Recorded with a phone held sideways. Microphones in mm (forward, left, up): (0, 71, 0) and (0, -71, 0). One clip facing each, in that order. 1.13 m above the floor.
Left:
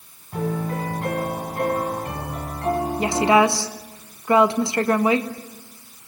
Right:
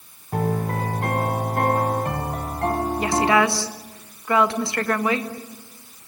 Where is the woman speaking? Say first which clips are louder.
Left 2 dB; 20° left (ahead or behind), 1.7 m.